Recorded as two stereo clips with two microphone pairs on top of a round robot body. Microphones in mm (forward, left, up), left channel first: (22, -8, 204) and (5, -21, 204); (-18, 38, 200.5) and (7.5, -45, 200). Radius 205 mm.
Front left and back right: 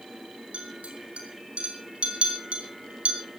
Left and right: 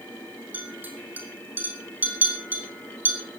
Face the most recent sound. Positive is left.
turn(degrees=-140)